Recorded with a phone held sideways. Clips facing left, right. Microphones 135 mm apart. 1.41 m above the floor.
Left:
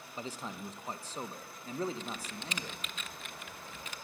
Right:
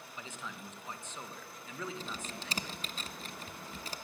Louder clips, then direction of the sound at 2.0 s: Left 1 dB; 35° right (ahead or behind).